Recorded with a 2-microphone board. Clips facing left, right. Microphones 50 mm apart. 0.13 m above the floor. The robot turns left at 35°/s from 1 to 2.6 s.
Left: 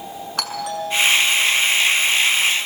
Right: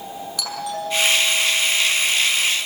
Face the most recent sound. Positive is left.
turn(degrees=5)